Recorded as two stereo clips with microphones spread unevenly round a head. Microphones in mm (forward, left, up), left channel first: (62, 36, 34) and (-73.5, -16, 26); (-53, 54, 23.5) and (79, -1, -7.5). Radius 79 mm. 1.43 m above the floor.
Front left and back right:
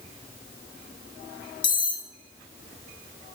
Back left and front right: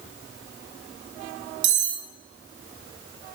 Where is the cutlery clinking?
40° right, 2.5 m.